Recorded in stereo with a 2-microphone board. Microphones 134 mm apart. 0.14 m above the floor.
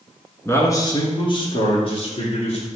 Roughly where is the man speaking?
Centre.